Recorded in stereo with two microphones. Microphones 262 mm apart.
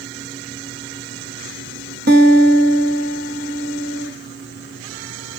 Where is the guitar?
40° right (ahead or behind), 0.7 m.